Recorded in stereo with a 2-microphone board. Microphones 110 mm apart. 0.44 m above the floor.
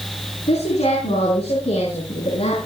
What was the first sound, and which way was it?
A woman speaking, 75° left (ahead or behind).